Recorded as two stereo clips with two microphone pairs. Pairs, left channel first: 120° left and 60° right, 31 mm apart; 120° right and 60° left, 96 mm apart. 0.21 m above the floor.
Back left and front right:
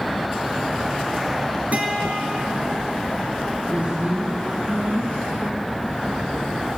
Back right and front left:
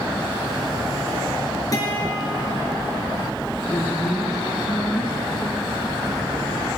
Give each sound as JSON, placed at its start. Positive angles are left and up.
{"t": 1.7, "sound": "a guitar", "azimuth_deg": -80, "distance_m": 1.9}
{"t": 3.7, "sound": "a woman speaking", "azimuth_deg": -65, "distance_m": 3.0}